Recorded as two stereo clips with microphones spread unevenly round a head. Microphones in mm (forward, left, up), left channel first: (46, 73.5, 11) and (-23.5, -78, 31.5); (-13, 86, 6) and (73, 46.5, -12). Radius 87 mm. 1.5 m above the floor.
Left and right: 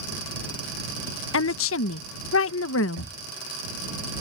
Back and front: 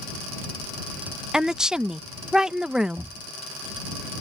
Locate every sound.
1.3 s a woman speaking: 65° left
3.0 s knocking: 100° right